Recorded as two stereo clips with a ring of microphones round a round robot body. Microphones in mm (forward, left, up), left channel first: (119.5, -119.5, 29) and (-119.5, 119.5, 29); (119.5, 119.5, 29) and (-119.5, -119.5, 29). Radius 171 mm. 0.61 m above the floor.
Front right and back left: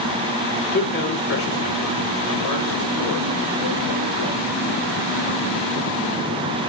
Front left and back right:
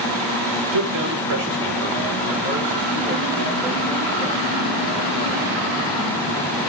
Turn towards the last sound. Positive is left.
turn(degrees=-50)